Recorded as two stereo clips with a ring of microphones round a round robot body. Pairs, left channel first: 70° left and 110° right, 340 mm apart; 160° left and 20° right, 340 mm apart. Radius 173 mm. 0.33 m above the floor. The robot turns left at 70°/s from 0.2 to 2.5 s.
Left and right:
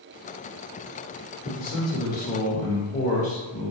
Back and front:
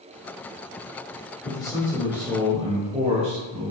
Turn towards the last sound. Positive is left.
turn(degrees=30)